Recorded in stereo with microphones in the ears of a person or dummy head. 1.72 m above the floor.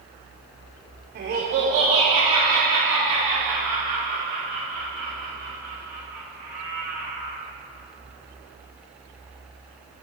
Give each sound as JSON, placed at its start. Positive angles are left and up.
{"t": 1.1, "sound": "laughter", "side_deg": -60, "distance_m": 1.0}